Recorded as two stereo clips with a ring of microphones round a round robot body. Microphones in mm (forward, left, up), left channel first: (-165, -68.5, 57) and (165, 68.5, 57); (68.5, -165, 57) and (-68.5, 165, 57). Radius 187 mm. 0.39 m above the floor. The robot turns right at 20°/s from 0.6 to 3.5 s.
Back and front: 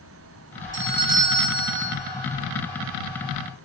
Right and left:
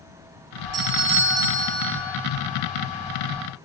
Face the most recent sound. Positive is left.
turn(degrees=135)